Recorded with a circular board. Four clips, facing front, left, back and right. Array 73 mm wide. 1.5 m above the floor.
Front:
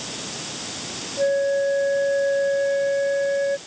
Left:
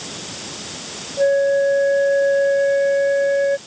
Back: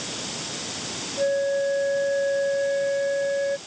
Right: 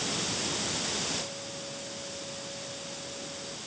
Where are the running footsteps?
No running footsteps in this recording.